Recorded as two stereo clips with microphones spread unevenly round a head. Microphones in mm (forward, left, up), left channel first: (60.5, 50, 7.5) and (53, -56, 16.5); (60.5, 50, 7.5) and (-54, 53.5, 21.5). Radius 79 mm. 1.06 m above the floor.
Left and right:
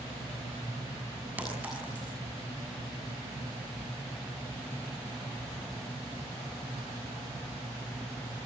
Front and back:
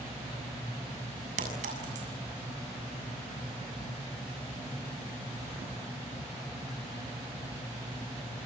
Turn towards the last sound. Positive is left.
turn(degrees=-175)